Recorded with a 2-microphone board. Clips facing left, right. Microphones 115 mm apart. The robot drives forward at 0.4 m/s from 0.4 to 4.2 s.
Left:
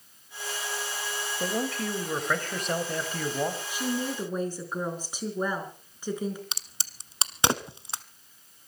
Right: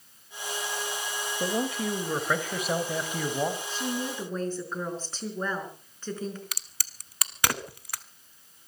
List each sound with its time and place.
1.4 s a man speaking: 5° right (ahead or behind), 1.7 m
3.7 s a woman speaking: 10° left (ahead or behind), 4.5 m
6.5 s a crack: 25° left (ahead or behind), 0.9 m